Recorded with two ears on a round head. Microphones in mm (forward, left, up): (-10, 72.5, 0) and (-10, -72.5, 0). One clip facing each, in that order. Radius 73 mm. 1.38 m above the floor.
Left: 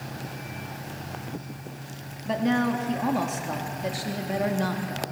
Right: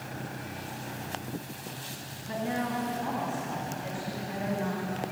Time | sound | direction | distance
2.2 | a woman speaking | 85° left | 3 m